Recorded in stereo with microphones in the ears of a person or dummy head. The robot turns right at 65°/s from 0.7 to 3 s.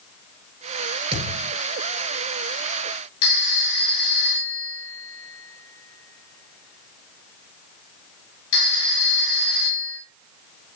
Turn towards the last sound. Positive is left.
turn(degrees=80)